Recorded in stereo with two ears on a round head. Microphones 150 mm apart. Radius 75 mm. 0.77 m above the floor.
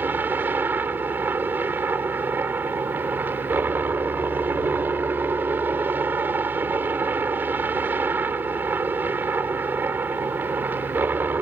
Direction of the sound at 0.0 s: 10° right (ahead or behind).